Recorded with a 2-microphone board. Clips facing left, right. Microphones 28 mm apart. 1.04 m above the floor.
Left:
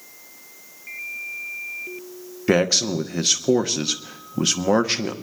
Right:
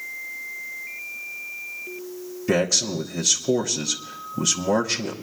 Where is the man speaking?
35° left (ahead or behind), 0.9 m.